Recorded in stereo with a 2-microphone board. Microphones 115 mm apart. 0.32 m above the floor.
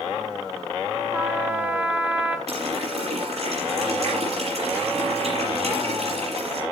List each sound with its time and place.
1.1 s a trumpet: 15° right (ahead or behind), 2.5 m
2.5 s a running tap: 65° right (ahead or behind), 6 m